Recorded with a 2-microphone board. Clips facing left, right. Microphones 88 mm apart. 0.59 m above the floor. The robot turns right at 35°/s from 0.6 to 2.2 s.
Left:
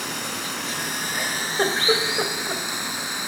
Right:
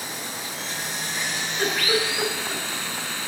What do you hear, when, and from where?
0.0 s running water: 110° left, 2 m; by 3.3 s 165° left, 2 m
1.1 s a giggle: 60° left (ahead or behind), 3 m; by 2.6 s 25° left (ahead or behind), 3 m